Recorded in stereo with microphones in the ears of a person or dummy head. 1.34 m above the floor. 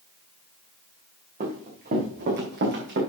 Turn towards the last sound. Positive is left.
turn(degrees=-65)  # may be behind; listen again after turning